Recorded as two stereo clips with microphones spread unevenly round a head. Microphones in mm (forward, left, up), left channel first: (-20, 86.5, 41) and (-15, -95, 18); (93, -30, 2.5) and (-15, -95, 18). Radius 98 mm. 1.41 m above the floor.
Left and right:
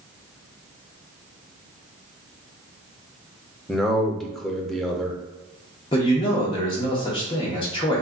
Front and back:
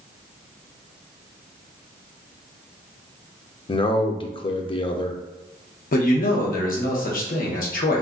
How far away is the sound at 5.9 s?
About 0.9 m.